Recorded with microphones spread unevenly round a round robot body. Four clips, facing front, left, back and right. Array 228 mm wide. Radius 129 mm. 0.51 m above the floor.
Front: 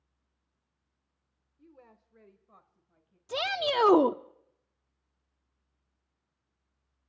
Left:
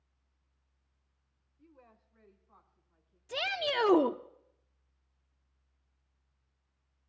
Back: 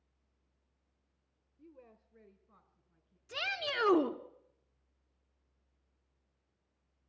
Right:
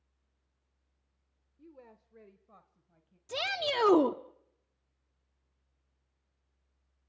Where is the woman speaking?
125° right, 1.1 m; by 3.2 s 100° right, 3 m.